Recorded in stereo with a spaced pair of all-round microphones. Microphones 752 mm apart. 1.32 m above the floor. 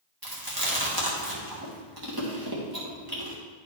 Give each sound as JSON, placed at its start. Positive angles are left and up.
{"t": 0.2, "sound": "chewing", "side_deg": -30, "distance_m": 1.8}